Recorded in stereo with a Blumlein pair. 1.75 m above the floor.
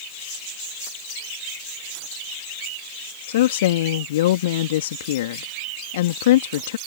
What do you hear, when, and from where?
3.3 s a woman speaking: 55° left